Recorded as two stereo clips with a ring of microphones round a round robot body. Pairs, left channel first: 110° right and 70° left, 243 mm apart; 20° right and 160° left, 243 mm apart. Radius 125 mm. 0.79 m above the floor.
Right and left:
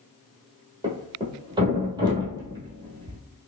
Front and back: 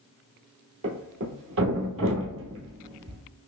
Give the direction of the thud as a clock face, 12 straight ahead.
7 o'clock.